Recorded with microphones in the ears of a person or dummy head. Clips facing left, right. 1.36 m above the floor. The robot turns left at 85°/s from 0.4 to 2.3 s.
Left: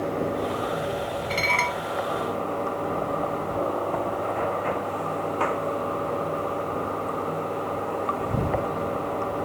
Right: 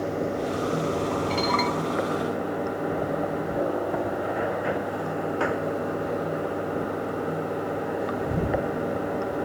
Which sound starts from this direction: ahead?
Running water, at 0.0 s.